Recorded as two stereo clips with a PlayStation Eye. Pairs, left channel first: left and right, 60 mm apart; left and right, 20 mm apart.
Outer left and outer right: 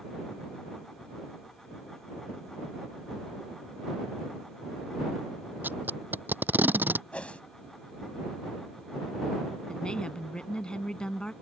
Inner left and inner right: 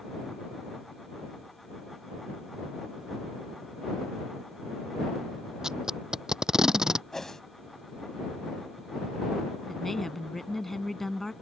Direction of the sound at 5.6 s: 30° right (ahead or behind).